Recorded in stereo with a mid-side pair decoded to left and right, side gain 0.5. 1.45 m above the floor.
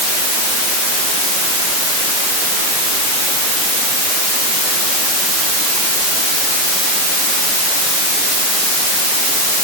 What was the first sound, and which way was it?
Only background noise.